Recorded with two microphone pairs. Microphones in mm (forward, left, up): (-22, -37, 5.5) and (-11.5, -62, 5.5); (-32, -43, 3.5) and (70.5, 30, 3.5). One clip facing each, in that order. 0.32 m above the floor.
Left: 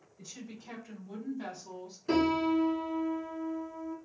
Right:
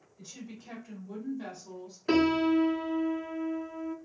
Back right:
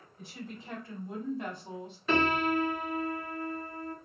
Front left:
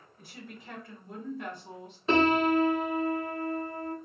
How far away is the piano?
About 0.7 m.